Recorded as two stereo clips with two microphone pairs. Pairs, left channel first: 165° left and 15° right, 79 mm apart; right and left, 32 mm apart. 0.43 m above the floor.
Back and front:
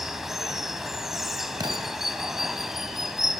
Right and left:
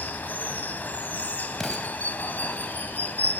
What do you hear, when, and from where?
0.0 s running water: 100° right, 2.5 m
1.6 s an explosion: 5° right, 2.5 m